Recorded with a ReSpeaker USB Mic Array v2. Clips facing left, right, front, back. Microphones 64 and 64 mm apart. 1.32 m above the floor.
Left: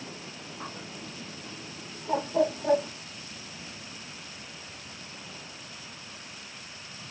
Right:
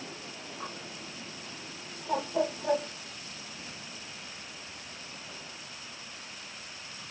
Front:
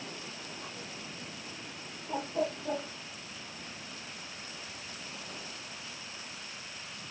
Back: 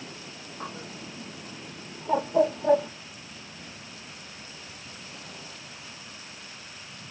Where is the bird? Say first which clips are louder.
Left 2 dB, back 5 dB; 175° left, 0.9 m.